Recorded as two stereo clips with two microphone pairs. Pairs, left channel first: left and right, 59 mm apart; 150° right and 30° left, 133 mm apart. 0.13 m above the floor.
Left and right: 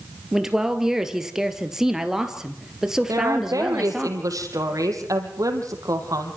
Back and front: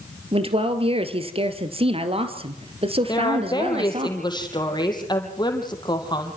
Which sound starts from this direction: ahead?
A man speaking, at 0.3 s.